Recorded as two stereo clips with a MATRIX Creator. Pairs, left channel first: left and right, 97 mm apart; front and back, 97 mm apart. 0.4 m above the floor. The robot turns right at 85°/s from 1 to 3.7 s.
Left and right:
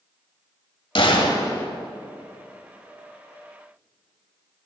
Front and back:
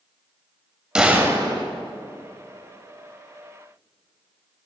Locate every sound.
0.9 s a gunshot: 100° left, 1.9 m; by 1.6 s 155° left, 1.9 m